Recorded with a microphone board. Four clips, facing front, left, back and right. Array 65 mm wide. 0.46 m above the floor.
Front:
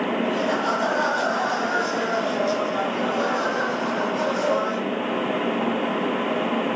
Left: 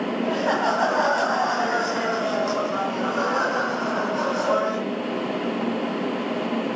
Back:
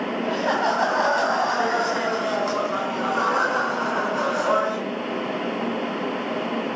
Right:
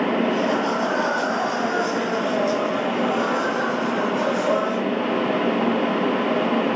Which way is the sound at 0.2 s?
135° left.